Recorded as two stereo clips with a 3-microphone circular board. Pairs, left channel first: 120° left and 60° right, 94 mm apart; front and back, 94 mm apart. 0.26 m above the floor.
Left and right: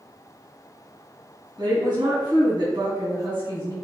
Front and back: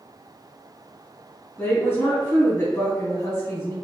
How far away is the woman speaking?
About 1.6 m.